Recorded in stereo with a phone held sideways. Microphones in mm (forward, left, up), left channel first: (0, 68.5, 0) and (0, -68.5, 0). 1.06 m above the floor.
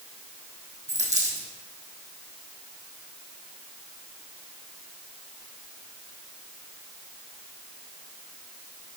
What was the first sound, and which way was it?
A dropped coin, 60° right (ahead or behind).